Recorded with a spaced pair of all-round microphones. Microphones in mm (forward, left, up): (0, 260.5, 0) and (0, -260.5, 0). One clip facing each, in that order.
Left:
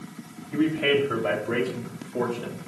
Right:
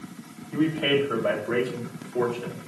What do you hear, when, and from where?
0.5 s a man speaking: 40° left (ahead or behind), 3 m; by 2.6 s 60° left (ahead or behind), 1.9 m